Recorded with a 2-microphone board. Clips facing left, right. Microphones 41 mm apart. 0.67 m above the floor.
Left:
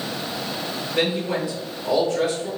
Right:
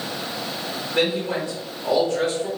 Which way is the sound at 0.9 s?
40° right (ahead or behind).